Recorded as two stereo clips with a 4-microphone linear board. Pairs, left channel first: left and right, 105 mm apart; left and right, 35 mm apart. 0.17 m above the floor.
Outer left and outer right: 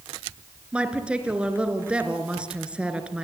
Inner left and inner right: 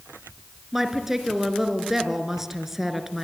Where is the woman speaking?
10° right (ahead or behind), 3 m.